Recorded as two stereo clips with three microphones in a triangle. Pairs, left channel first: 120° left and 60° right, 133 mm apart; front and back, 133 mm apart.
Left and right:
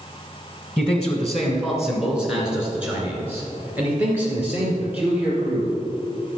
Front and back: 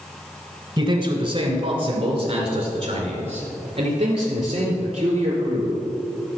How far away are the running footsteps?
No running footsteps in this recording.